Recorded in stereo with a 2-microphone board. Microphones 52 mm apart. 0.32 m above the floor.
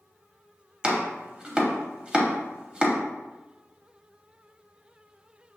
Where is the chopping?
20° right (ahead or behind), 0.8 m.